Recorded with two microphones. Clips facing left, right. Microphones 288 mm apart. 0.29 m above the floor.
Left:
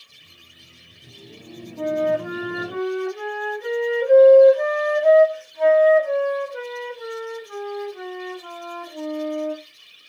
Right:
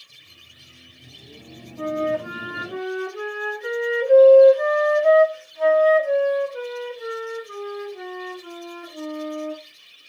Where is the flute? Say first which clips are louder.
Left 2 dB; 60° left (ahead or behind), 1.2 m.